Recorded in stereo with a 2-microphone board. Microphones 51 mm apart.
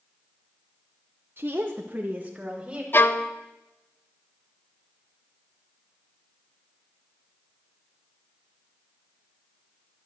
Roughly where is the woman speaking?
Right.